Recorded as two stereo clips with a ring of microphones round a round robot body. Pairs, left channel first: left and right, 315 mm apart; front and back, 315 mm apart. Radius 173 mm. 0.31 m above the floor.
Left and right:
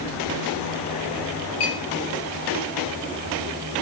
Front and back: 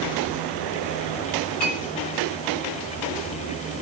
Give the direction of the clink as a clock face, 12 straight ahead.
9 o'clock.